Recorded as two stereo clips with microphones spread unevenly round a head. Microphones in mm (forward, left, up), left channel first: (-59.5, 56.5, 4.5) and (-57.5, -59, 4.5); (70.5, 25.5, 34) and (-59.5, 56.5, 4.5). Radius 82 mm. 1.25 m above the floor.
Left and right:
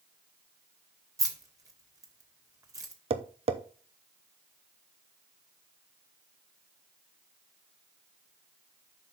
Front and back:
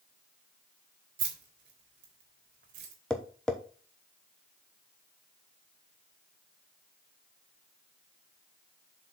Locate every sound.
1.2 s keys jangling: 150° right, 1.7 m
3.1 s tapping: 105° right, 0.8 m